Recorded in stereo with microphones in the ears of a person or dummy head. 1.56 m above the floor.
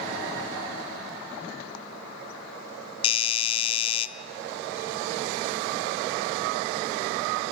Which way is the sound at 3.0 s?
30° left (ahead or behind).